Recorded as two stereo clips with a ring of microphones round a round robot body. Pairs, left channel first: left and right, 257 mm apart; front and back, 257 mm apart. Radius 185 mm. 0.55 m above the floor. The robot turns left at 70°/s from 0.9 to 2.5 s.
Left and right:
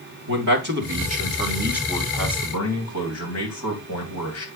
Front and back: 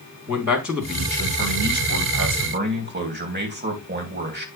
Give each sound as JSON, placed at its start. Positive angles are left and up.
{"t": 0.3, "sound": "a man speaking", "azimuth_deg": -115, "distance_m": 3.0}